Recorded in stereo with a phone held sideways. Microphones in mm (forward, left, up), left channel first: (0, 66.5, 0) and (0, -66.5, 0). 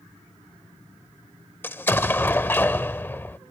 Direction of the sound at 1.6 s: 15° left (ahead or behind).